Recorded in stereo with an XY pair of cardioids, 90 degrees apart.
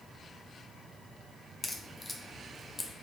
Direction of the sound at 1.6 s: 25° left.